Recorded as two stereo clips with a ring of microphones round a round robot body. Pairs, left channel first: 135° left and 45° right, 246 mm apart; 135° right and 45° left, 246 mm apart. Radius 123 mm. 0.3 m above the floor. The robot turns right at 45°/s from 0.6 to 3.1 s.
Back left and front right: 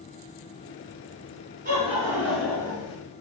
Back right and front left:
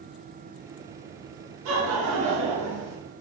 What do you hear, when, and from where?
1.6 s laughter: 10° left, 5 m; by 3.0 s 70° left, 5 m